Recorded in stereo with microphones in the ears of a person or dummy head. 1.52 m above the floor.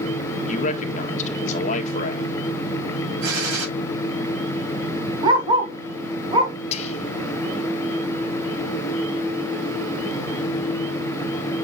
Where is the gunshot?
90° right, 6 m.